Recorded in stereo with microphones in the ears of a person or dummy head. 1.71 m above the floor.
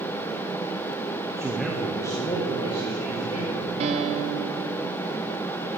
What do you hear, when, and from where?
1.4 s a man speaking: 15° right (ahead or behind), 0.7 m; by 3.7 s 35° left (ahead or behind), 3.5 m
3.8 s a piano: 35° right (ahead or behind), 1.2 m